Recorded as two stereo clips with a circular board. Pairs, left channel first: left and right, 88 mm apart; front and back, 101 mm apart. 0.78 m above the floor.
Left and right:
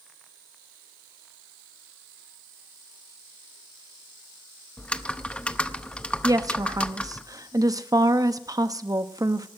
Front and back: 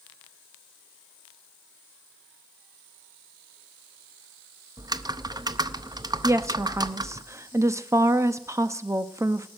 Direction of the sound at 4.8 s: 160° left.